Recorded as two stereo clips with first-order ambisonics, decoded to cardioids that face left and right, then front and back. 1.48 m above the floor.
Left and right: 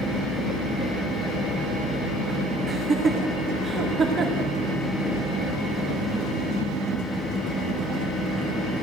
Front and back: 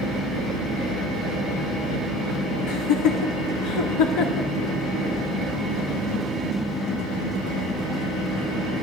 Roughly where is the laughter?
Ahead.